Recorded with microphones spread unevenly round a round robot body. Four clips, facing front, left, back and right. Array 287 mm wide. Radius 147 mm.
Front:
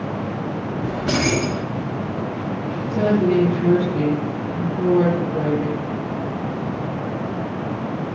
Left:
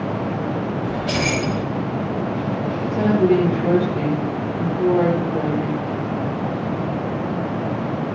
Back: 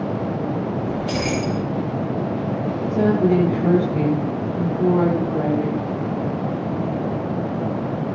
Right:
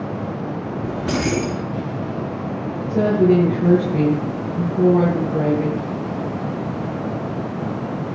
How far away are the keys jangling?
About 4 m.